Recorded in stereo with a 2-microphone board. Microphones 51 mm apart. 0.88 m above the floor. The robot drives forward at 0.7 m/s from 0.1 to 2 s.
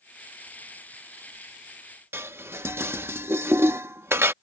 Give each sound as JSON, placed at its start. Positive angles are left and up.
{"t": 2.1, "sound": "dishes clattering", "side_deg": -55}